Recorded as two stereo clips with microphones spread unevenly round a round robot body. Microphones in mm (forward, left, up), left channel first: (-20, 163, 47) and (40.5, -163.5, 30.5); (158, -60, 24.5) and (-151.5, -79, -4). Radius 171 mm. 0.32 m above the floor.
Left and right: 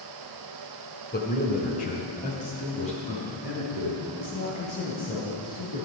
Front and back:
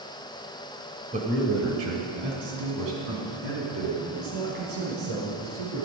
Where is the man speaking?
140° left, 1.5 m; by 5.8 s 175° left, 7 m.